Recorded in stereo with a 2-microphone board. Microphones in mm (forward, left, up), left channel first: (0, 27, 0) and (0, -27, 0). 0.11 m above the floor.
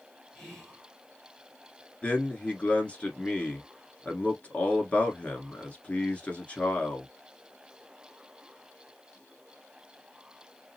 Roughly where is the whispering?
Centre.